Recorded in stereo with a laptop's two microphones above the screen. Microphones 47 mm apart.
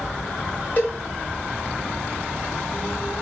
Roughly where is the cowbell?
Left.